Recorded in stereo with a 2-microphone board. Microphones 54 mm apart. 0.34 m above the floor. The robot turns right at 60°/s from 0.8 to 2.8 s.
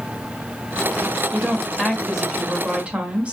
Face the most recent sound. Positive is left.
turn(degrees=-25)  # may be behind; listen again after turning